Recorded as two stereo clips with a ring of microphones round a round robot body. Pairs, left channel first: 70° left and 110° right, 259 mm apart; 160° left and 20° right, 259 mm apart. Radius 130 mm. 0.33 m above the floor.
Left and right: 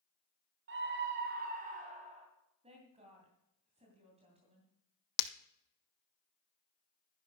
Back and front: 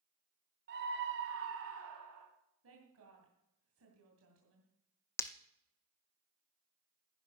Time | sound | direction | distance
0.7 | a scream | 70° right | 2 m
2.6 | a woman speaking | 50° right | 2.5 m
5.2 | breaking glass | 75° left | 0.8 m